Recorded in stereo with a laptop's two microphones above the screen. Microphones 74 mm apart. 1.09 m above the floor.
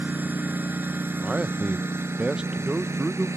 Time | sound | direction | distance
0.0 | a lawn mower | 25° right (ahead or behind) | ?
1.2 | a man speaking | 15° right (ahead or behind) | ?